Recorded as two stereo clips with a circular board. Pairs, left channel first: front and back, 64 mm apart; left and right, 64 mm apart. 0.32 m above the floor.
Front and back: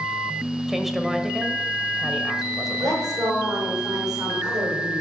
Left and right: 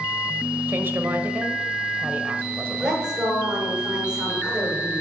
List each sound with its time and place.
0.7 s a woman speaking: 100° right, 1.0 m
2.8 s a woman speaking: 170° right, 6 m